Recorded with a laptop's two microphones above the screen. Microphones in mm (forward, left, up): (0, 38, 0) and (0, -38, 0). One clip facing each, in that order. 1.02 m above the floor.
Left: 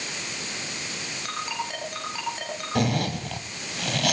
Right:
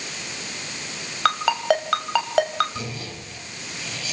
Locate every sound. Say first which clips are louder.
1.2 s a ringtone: right 13 dB; 85° right, 4 m
2.8 s a zipper: left 9 dB; 60° left (ahead or behind), 3 m